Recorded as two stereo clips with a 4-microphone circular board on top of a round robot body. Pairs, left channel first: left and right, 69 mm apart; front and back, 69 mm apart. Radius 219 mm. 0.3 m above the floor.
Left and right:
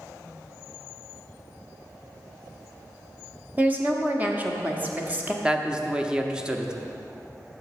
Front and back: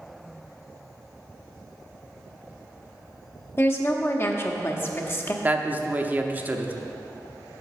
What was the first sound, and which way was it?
A woman speaking, 35° right.